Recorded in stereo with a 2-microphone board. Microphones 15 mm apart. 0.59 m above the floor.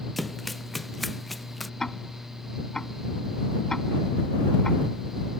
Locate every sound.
0.2 s running footsteps: 5° left (ahead or behind)
1.8 s ticking: 35° left (ahead or behind)